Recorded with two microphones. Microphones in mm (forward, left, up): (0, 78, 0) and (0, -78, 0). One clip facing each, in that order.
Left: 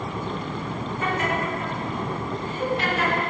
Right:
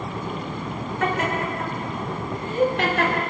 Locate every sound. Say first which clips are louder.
1.0 s laughter: right 2 dB; 85° right, 4.5 m; by 3.2 s 75° right (ahead or behind), 3.5 m